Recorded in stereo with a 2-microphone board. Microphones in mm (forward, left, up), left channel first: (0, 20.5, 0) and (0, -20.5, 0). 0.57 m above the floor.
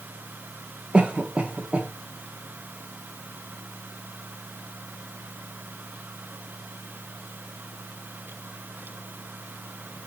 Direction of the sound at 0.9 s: 25° right (ahead or behind).